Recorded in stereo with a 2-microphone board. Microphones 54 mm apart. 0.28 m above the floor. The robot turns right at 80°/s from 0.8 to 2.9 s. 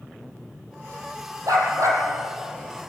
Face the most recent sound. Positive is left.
turn(degrees=15)